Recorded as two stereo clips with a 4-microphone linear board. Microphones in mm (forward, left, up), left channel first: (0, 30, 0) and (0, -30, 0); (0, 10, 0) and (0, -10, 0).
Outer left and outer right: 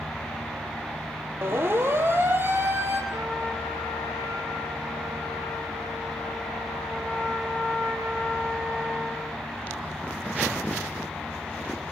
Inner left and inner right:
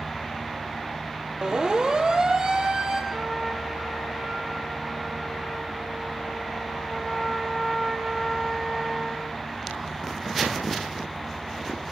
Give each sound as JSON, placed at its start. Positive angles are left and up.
{"t": 1.4, "sound": "a siren", "side_deg": -45, "distance_m": 4.0}
{"t": 3.1, "sound": "a trumpet", "side_deg": -65, "distance_m": 4.5}